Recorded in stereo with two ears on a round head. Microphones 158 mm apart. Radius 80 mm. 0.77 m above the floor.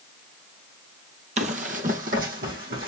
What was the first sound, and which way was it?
Running footsteps, 40° right (ahead or behind).